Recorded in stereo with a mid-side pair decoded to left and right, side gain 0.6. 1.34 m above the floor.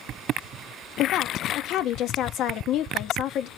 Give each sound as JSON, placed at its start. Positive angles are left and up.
{"t": 1.0, "sound": "a woman speaking", "azimuth_deg": 60, "distance_m": 0.8}